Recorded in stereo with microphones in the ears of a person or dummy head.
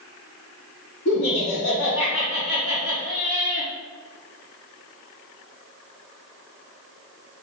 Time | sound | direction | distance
1.1 | laughter | 70° left (ahead or behind) | 1.5 m